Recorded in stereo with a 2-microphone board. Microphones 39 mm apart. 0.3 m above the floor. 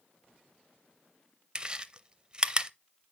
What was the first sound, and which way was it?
Chewing, 25° right (ahead or behind).